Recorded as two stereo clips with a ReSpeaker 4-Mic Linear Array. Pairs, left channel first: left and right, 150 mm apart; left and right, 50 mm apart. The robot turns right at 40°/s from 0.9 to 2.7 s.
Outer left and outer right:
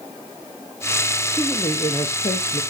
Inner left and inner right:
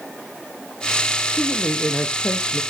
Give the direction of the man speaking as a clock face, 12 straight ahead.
12 o'clock.